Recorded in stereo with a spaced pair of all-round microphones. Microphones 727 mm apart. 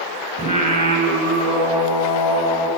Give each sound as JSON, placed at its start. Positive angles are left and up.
{"t": 0.4, "sound": "singing", "side_deg": 10, "distance_m": 2.5}